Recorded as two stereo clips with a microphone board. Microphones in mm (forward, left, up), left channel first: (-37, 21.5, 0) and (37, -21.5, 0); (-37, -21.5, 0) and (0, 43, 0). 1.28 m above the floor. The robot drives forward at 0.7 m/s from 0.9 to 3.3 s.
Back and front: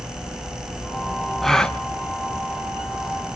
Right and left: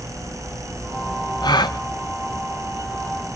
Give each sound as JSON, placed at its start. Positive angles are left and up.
{"t": 1.4, "sound": "a gasp", "azimuth_deg": -120, "distance_m": 1.2}